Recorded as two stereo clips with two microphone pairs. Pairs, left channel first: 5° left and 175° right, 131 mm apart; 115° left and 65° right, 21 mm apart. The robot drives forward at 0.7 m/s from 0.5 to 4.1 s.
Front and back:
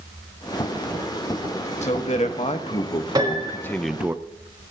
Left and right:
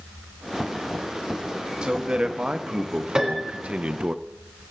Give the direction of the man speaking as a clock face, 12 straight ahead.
1 o'clock.